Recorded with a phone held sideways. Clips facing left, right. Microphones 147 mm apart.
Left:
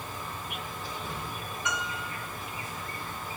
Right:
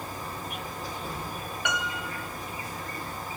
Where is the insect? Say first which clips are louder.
Right 2 dB; 40° right (ahead or behind), 0.9 m.